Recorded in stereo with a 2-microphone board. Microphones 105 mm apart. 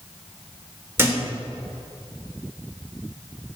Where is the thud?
25° right (ahead or behind), 1.3 m.